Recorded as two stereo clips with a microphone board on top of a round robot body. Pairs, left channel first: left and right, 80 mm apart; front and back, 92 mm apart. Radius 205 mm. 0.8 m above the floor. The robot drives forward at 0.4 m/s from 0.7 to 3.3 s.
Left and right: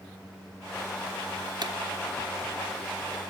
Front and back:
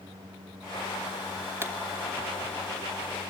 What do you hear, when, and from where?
1.6 s a pop: 120° right, 2.5 m